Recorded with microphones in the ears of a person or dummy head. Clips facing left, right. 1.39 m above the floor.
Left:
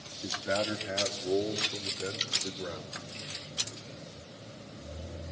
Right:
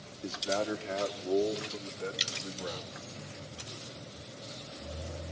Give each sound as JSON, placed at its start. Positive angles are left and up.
{"t": 0.2, "sound": "a man speaking", "side_deg": 15, "distance_m": 3.0}
{"t": 2.2, "sound": "dripping", "side_deg": -5, "distance_m": 2.5}